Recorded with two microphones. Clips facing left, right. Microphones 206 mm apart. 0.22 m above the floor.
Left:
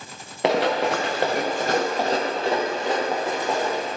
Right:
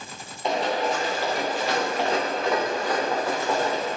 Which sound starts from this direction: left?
Running footsteps, at 0.4 s.